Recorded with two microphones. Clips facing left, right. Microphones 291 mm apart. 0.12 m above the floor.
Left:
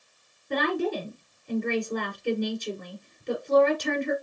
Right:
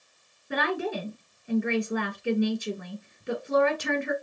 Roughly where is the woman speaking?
Centre.